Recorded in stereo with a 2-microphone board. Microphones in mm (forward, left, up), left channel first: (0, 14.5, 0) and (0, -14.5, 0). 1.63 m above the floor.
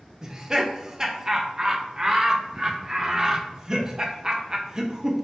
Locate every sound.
0.2 s laughter: 20° right (ahead or behind), 0.5 m